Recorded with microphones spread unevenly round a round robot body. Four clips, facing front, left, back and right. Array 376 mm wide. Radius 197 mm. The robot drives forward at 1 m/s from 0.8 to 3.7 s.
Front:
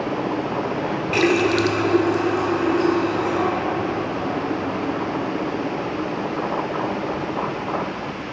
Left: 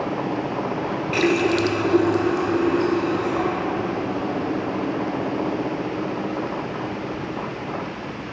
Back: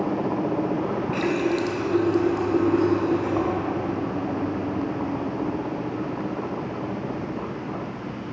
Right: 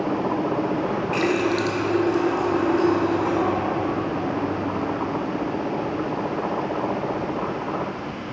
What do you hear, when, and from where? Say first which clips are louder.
1.1 s a running tap: left 4 dB, front 7 dB; 15° left, 1.1 m; by 5.6 s 170° left, 1.8 m